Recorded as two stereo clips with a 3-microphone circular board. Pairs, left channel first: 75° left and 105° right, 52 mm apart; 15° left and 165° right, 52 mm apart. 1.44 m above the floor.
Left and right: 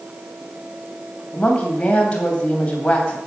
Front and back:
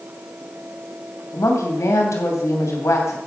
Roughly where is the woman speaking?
Ahead.